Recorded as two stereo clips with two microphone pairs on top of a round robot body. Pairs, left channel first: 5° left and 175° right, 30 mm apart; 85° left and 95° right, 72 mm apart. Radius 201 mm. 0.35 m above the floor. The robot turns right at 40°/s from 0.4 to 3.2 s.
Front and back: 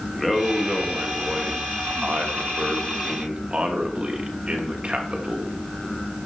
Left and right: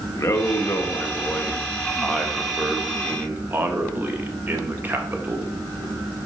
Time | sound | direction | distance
0.1 | a man speaking | 95° left | 1.6 m